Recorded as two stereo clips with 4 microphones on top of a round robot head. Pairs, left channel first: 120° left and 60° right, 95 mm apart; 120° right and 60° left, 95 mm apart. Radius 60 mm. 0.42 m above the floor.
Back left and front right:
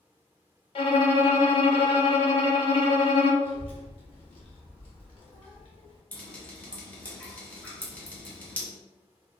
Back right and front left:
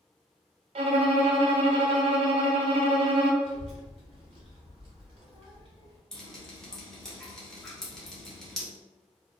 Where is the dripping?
165° left, 1.1 m.